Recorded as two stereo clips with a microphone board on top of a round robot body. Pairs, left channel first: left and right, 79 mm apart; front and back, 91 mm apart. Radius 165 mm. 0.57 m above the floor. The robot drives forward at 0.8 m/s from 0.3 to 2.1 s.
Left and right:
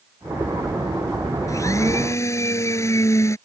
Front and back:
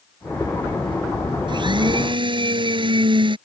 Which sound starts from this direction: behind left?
A blender, at 1.5 s.